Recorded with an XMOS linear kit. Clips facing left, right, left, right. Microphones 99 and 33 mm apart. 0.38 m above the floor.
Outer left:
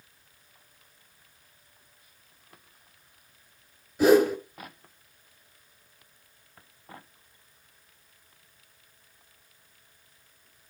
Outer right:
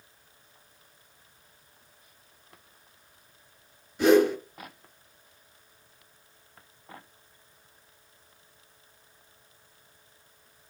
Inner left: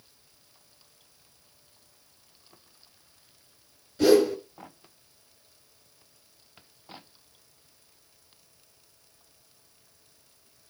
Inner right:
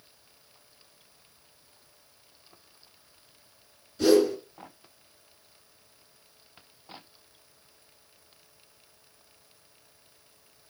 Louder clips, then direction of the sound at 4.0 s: Even, inner left 1 dB; 5° left (ahead or behind).